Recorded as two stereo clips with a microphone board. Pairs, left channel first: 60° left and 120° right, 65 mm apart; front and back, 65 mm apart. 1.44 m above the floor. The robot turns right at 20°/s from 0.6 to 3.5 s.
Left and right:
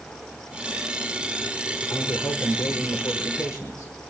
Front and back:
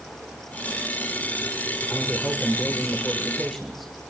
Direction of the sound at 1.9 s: 55° left.